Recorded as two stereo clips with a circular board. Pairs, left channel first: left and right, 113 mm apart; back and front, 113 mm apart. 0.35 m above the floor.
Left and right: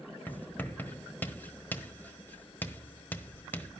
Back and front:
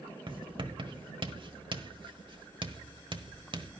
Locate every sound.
0.3 s writing: 20° left, 1.2 m